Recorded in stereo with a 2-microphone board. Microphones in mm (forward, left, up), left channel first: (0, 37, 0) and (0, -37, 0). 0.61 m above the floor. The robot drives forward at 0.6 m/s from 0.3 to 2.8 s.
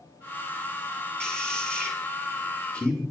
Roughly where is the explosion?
I don't hear an explosion.